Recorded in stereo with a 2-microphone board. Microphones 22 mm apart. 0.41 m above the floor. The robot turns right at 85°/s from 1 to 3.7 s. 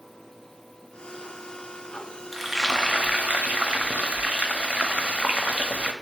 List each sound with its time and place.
2.3 s frying: straight behind, 0.5 m; by 5.9 s 65° right, 0.5 m